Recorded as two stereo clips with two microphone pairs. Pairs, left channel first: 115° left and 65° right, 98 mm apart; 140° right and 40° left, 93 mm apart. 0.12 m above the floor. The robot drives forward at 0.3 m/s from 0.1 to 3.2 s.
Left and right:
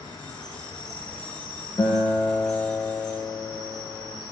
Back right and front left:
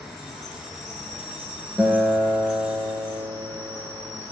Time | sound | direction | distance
0.0 | an insect | 135° left | 0.8 m
1.8 | a guitar | 125° left | 0.6 m